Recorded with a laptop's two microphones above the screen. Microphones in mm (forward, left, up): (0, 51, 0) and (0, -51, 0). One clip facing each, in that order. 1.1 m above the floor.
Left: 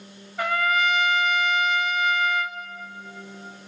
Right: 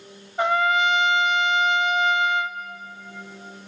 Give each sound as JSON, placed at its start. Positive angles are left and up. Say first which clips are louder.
{"t": 0.4, "sound": "a trumpet", "louder": "right 3 dB", "side_deg": -25, "distance_m": 0.6}